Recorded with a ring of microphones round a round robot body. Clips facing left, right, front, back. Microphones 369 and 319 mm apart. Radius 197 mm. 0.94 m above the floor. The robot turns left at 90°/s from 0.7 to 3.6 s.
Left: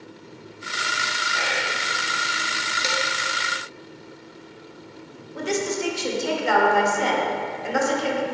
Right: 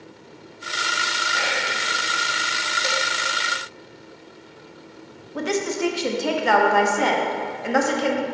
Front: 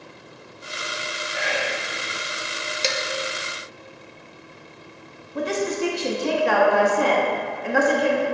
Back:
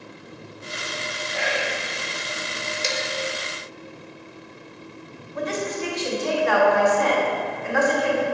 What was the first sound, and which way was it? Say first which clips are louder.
Whispering: right 1 dB, even; 145° right.